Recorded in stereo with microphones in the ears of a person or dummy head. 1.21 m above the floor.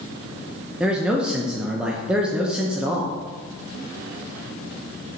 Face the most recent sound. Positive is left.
turn(degrees=-5)  # may be behind; listen again after turning